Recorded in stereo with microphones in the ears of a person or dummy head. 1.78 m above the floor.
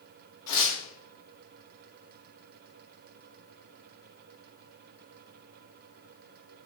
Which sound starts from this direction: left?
Tearing paper, at 0.5 s.